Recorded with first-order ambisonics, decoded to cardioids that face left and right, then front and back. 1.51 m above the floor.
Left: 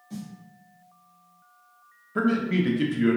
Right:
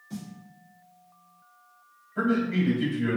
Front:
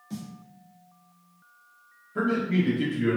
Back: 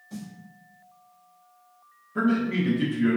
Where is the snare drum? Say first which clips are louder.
Left 1 dB, front 1 dB; 5° right, 1.0 m.